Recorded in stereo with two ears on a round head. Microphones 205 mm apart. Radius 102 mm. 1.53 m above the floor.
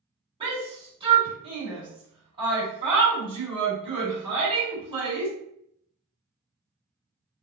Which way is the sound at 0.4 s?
25° right (ahead or behind).